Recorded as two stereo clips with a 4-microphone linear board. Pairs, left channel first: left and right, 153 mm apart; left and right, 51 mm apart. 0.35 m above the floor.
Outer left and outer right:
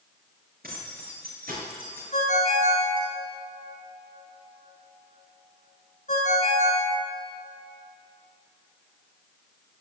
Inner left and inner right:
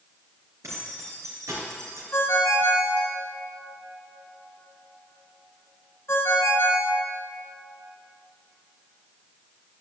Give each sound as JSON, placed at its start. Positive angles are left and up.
{"t": 0.6, "sound": "keys jangling", "side_deg": -80, "distance_m": 4.5}
{"t": 2.1, "sound": "a ringtone", "side_deg": 55, "distance_m": 1.9}